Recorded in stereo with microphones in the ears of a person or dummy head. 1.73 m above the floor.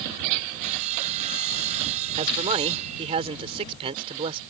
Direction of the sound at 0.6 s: 45° right (ahead or behind).